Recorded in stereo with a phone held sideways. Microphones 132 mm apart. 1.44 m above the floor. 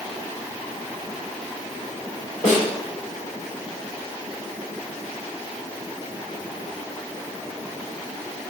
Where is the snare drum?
75° left (ahead or behind), 3 m.